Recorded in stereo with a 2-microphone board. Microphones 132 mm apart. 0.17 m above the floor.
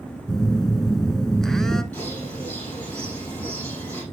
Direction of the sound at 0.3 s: 5° left (ahead or behind).